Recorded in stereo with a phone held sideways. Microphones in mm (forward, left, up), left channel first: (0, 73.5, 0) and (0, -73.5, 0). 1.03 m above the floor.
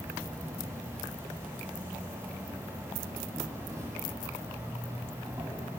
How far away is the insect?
About 3.5 m.